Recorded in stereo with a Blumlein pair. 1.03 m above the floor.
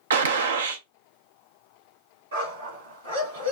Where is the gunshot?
65° right, 0.6 m.